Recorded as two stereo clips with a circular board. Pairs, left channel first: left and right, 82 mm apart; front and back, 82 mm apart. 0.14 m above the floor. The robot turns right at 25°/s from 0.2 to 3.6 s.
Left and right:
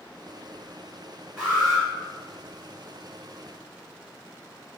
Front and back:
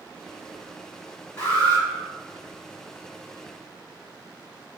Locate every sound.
1.4 s an alarm: 5° left, 2.0 m; by 1.9 s 20° left, 2.0 m